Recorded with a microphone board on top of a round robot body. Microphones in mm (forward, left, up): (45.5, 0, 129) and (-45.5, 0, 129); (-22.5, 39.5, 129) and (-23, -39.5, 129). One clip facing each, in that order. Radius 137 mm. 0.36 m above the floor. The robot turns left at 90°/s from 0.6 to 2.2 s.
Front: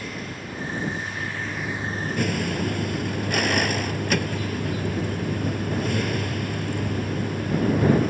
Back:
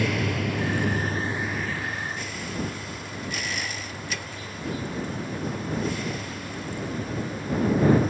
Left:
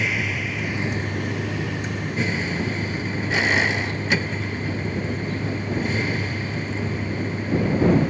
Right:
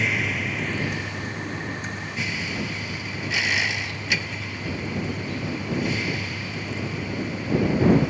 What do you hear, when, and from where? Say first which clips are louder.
0.0 s a vehicle: back 8 dB, even; 175° left; by 8.1 s 35° left